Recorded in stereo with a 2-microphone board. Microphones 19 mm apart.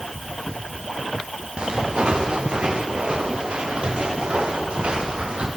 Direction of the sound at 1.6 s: 65° right (ahead or behind).